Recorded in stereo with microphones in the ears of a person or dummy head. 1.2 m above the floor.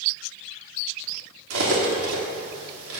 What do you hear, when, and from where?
1.5 s cutlery clinking: 75° right (ahead or behind), 1.7 m